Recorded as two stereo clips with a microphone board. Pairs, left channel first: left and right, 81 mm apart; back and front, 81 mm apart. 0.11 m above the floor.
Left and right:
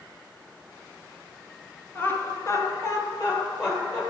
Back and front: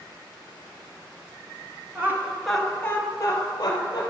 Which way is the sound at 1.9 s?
40° left.